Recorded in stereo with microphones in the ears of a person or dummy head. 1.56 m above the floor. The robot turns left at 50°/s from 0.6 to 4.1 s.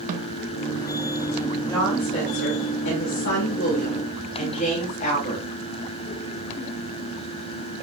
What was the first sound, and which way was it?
A snare drum, 45° right (ahead or behind).